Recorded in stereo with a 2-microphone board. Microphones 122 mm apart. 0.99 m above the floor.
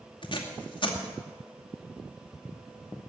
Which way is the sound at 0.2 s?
40° left (ahead or behind).